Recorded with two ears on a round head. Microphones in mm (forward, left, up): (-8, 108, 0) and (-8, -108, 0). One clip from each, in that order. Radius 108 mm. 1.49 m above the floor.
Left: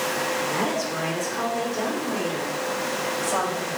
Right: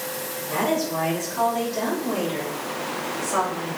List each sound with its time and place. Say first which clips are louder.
0.5 s a woman speaking: right 1 dB; 35° right (ahead or behind), 4.5 m; by 3.7 s 20° right (ahead or behind), 7 m